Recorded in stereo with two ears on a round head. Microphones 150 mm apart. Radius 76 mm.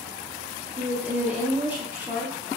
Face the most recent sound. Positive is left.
turn(degrees=-10)  # may be behind; listen again after turning